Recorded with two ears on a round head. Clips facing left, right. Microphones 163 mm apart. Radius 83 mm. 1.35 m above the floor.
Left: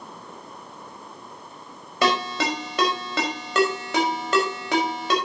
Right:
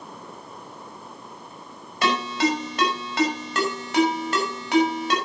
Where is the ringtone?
75° left (ahead or behind), 5 m.